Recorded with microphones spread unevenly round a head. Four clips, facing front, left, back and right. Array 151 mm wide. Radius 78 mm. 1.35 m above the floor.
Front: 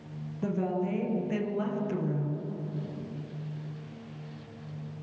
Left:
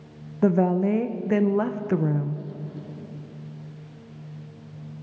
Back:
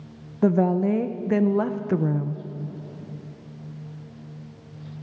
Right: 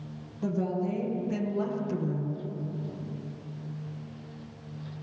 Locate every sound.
0.4 s a woman speaking: 135° left, 0.9 m